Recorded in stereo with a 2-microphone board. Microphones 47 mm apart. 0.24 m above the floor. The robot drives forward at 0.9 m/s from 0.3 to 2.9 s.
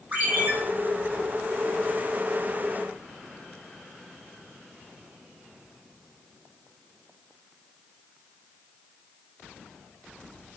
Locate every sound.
0.1 s a ringtone: 35° right (ahead or behind), 5 m; by 0.5 s 30° right (ahead or behind), 5.5 m